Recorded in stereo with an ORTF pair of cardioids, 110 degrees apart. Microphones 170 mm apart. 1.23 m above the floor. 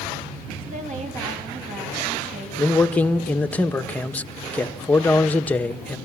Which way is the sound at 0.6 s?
45° right.